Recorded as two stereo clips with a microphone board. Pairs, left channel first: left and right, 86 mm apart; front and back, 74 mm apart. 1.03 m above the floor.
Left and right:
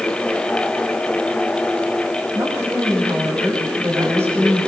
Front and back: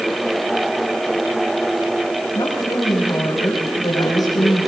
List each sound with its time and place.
2.3 s a woman speaking: 30° right, 5.5 m